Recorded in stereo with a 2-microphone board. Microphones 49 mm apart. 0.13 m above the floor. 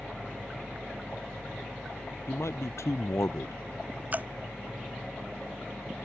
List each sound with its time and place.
2.3 s a man speaking: 70° left (ahead or behind)
4.1 s dripping: 35° right (ahead or behind)